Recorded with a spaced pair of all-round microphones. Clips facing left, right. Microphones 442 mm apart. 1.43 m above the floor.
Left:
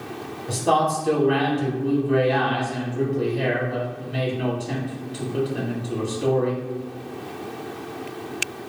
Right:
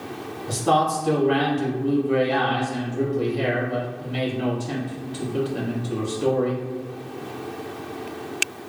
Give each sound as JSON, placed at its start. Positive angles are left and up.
{"t": 0.5, "sound": "a man speaking", "side_deg": -20, "distance_m": 0.9}